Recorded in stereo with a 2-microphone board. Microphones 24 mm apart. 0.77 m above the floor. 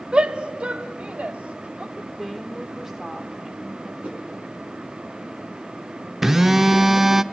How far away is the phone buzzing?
About 0.5 m.